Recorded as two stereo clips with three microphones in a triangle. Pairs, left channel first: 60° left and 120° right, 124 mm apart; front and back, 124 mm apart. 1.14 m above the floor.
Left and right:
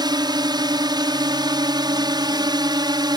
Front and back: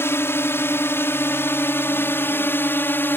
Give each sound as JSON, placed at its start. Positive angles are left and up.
{"t": 0.0, "sound": "a drone", "azimuth_deg": -70}